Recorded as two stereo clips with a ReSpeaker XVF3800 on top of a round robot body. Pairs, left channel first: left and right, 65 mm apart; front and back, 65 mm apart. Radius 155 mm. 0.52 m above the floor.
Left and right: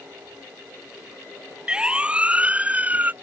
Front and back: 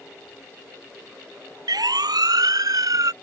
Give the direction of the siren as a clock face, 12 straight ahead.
6 o'clock.